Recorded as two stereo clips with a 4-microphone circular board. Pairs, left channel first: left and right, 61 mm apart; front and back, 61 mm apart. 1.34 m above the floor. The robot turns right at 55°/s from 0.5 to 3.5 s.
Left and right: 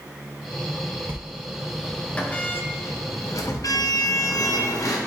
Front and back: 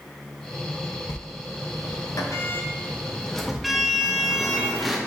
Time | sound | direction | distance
1.1 | a sliding door | 40° right | 0.8 m